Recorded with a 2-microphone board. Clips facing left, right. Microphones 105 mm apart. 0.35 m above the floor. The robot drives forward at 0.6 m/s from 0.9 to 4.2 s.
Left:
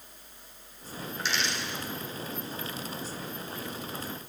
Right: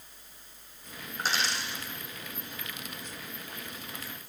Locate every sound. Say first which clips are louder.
1.2 s a dropped coin: right 1 dB; 40° right (ahead or behind), 1.3 m; by 1.8 s 35° right (ahead or behind), 1.6 m